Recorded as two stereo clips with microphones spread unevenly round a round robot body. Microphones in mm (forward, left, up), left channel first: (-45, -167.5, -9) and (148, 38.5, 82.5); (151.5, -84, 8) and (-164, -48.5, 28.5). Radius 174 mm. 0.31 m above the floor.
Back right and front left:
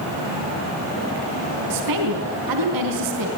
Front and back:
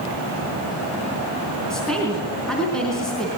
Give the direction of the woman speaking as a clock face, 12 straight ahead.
9 o'clock.